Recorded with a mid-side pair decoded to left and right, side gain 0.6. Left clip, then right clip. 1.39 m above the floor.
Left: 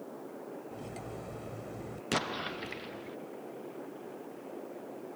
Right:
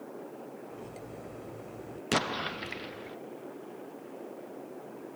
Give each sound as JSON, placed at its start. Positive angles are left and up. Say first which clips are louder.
{"t": 0.7, "sound": "cutlery clinking", "louder": "left 1 dB", "azimuth_deg": 25}
{"t": 2.1, "sound": "an explosion", "louder": "right 3 dB", "azimuth_deg": -20}